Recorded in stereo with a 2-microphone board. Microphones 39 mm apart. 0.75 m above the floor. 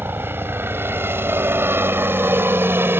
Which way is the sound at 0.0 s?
70° right (ahead or behind).